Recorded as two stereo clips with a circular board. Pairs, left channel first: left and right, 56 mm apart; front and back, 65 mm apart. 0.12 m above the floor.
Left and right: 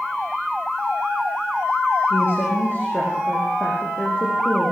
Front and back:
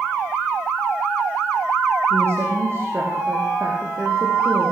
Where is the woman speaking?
135° left, 7.5 m.